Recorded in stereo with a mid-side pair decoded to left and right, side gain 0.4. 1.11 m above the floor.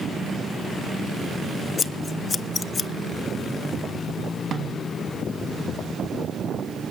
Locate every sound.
1.8 s scissors: 45° left, 0.5 m
4.5 s a snare drum: 60° right, 1.5 m